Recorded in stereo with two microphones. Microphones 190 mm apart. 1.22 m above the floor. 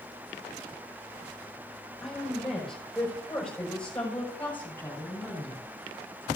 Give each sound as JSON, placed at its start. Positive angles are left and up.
{"t": 2.0, "sound": "a woman speaking", "side_deg": 0, "distance_m": 7.5}